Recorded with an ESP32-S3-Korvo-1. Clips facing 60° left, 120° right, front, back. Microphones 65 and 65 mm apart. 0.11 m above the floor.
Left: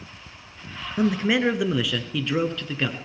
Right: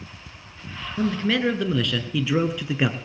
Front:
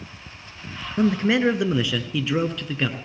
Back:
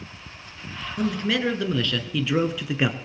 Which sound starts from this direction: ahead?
A man speaking, at 1.0 s.